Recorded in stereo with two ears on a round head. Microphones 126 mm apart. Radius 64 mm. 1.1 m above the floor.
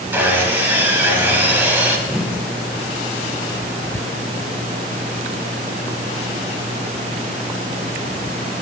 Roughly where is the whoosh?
Centre.